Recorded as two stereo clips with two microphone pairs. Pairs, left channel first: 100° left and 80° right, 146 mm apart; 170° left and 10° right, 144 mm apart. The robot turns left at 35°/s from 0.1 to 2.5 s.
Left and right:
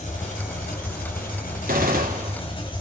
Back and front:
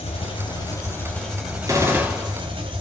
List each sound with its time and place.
0.0 s an engine running: 130° left, 3 m; by 2.8 s 45° left, 3 m
1.7 s a gunshot: 75° right, 2 m; by 2.4 s 100° right, 2 m